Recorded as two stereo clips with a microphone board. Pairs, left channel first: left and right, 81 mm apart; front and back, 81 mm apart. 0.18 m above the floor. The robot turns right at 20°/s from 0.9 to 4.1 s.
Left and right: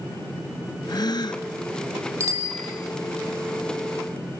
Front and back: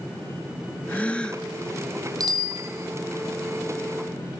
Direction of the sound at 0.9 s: 70° left.